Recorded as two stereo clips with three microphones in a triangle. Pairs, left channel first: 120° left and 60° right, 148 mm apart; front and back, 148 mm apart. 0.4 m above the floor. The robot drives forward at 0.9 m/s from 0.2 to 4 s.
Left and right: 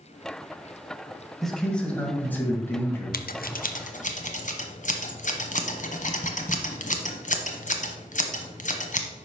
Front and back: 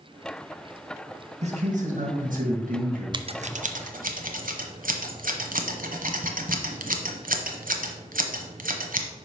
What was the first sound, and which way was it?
A man speaking, 150° right.